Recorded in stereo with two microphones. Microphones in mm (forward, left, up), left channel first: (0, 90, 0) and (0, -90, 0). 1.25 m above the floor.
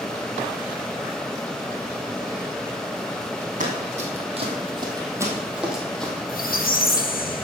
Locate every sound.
3.6 s running footsteps: 50° right (ahead or behind), 2.5 m; by 6.1 s 5° left (ahead or behind), 2 m
6.3 s a squeak: 55° left (ahead or behind), 0.9 m